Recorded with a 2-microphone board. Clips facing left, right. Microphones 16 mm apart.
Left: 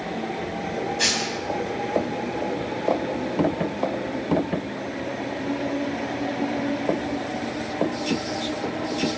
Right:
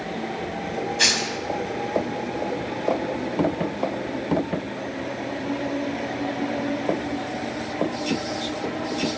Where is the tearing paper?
25° right (ahead or behind), 3.5 m.